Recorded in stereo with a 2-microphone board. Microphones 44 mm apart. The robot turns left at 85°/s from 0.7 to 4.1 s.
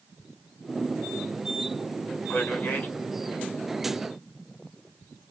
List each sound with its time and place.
2.3 s a man speaking: 105° left, 2 m; by 2.9 s 55° left, 2 m